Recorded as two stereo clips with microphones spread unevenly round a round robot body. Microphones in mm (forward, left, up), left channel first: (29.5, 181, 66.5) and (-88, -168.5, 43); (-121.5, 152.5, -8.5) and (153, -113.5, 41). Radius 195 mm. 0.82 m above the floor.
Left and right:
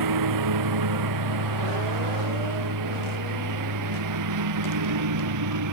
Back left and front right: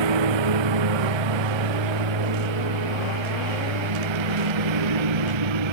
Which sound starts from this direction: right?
A lawn mower, at 0.0 s.